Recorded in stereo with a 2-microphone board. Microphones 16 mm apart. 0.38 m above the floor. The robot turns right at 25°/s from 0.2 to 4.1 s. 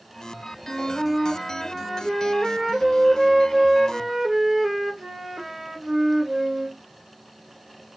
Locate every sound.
0.7 s a flute: 150° left, 1.6 m; by 6.8 s 125° right, 1.6 m